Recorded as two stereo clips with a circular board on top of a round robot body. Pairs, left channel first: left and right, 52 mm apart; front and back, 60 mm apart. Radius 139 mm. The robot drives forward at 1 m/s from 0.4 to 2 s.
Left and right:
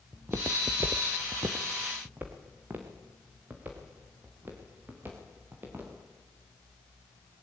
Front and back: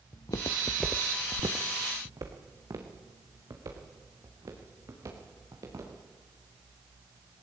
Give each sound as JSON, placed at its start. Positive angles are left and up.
{"t": 0.1, "sound": "footsteps", "azimuth_deg": -20, "distance_m": 1.0}